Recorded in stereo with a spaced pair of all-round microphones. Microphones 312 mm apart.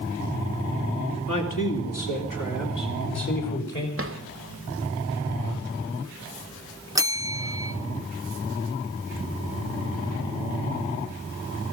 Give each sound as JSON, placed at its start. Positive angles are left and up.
{"t": 1.3, "sound": "a man speaking", "side_deg": 75, "distance_m": 3.0}
{"t": 4.0, "sound": "a drawer", "side_deg": -45, "distance_m": 1.0}
{"t": 7.0, "sound": "a bell", "side_deg": -10, "distance_m": 0.8}